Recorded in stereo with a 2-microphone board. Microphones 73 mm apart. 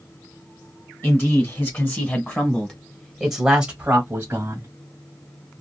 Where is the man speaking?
35° left (ahead or behind), 1.9 m; by 4.7 s 35° right (ahead or behind), 1.2 m.